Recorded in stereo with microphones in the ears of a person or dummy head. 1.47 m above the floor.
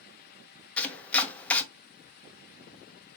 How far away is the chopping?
About 0.6 m.